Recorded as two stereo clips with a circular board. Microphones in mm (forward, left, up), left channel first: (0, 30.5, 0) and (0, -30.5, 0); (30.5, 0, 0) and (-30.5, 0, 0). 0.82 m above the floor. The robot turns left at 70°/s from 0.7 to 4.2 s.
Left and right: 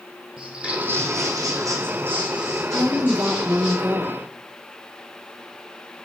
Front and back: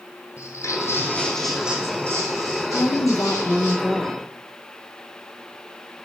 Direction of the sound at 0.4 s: 10° right.